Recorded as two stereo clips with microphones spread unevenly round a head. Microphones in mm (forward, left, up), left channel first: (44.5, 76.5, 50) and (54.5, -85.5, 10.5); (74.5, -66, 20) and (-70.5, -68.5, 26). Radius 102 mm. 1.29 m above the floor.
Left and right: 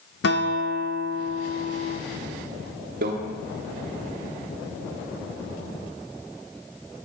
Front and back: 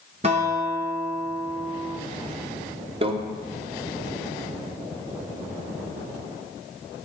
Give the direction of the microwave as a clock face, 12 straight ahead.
4 o'clock.